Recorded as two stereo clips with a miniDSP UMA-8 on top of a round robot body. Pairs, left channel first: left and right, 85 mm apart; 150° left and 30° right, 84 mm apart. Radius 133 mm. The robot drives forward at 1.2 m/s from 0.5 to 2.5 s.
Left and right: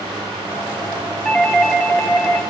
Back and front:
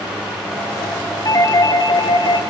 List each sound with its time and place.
1.2 s a doorbell: 170° left, 2 m; by 2.4 s 175° left, 3 m